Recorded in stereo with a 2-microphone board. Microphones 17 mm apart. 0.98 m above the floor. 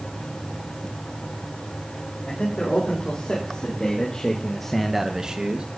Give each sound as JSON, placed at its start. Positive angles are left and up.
{"t": 2.3, "sound": "a man speaking", "side_deg": 80, "distance_m": 4.0}